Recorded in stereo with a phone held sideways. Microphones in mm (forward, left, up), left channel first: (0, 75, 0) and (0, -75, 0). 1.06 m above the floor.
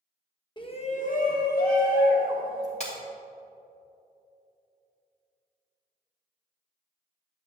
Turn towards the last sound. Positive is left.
turn(degrees=45)  # may be behind; listen again after turning